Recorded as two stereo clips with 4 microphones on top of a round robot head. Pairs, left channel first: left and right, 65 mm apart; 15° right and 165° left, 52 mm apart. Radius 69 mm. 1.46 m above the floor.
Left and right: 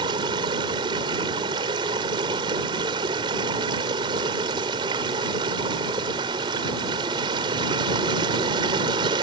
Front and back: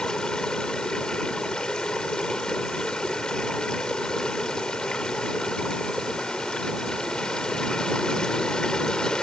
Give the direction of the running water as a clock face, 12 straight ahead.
3 o'clock.